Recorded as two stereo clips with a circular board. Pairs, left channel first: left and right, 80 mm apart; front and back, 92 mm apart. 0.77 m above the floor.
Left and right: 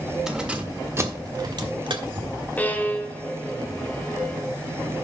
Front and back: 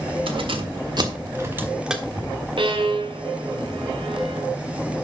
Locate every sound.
0.3 s keys jangling: 170° right, 1.8 m; by 2.3 s 85° right, 1.7 m
2.6 s a violin: 160° left, 1.5 m